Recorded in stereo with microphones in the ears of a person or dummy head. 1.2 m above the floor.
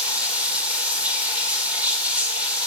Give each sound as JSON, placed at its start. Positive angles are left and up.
{"t": 0.0, "sound": "running water", "side_deg": -5, "distance_m": 1.5}